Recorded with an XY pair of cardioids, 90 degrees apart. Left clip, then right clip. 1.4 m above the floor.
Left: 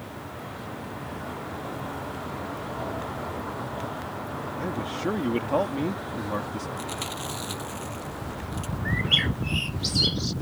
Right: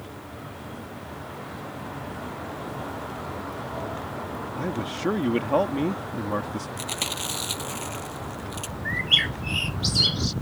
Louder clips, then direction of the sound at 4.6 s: Right 2 dB; 25° right.